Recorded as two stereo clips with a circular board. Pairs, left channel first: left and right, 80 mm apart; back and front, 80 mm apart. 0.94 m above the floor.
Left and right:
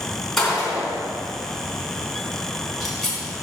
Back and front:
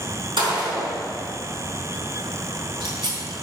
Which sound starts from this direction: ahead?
A gunshot, at 0.4 s.